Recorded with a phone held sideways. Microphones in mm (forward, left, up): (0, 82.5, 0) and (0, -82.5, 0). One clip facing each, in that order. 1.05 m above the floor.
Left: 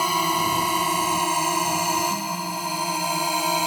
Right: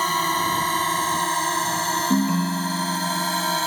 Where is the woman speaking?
I don't hear a woman speaking.